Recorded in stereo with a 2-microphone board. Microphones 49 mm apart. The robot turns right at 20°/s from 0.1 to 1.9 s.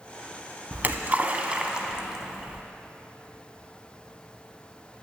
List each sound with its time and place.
0.7 s a splash: 40° right (ahead or behind), 0.5 m; by 2.6 s 15° right (ahead or behind), 0.5 m